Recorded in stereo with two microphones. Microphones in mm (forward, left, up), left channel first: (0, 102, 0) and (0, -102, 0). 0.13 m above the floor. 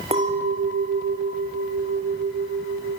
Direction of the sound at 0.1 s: 30° right (ahead or behind).